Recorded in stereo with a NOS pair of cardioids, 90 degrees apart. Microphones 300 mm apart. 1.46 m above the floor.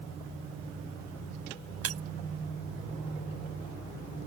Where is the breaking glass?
55° right.